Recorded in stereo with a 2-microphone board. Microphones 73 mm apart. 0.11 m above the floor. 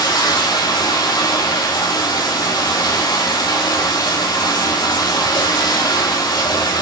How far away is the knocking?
I don't hear knocking.